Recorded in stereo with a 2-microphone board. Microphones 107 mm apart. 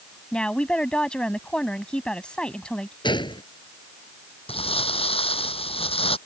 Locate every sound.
0.3 s a woman speaking: 10° left (ahead or behind)
3.0 s a gunshot: 45° left (ahead or behind)
4.5 s crumpling: 60° left (ahead or behind)